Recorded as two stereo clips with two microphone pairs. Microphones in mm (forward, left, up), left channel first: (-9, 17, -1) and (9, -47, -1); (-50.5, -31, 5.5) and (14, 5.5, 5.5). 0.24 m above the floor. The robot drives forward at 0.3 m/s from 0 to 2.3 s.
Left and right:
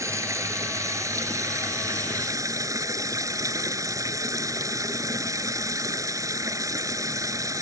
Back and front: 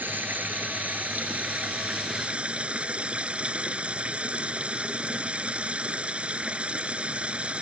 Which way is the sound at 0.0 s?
35° right.